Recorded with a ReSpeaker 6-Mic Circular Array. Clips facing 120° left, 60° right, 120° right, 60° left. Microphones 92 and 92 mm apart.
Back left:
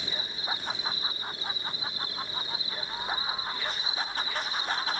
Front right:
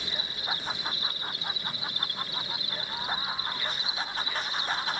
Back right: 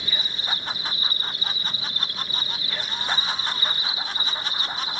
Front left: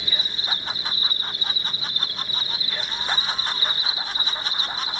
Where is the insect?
85° right, 6 m.